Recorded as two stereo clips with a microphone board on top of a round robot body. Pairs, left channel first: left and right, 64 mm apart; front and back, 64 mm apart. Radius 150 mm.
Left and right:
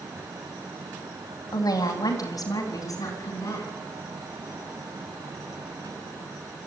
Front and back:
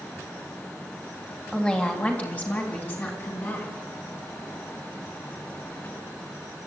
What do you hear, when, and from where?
1.5 s a woman speaking: 75° left, 3 m; by 3.7 s 55° left, 6 m